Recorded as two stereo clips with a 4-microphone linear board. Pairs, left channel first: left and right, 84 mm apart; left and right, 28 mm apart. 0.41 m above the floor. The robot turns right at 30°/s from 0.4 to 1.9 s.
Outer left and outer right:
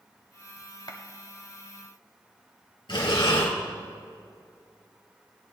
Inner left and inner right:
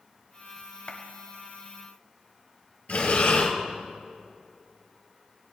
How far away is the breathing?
About 1.7 m.